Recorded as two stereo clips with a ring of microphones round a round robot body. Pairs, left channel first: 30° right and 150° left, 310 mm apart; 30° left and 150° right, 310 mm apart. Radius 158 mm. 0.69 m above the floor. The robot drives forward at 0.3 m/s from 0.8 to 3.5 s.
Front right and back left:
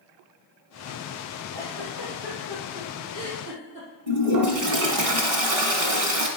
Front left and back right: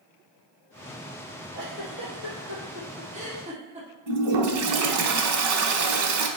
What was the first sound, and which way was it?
A giggle, 135° left.